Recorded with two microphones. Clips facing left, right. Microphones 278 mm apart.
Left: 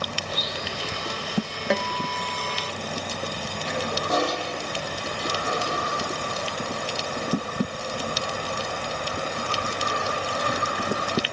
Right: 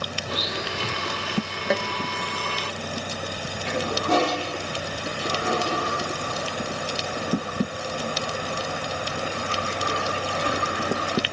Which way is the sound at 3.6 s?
85° right.